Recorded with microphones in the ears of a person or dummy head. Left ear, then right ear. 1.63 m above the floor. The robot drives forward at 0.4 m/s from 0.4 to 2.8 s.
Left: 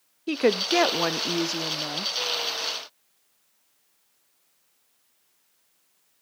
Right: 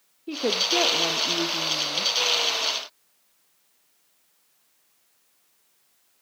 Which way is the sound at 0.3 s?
70° left (ahead or behind).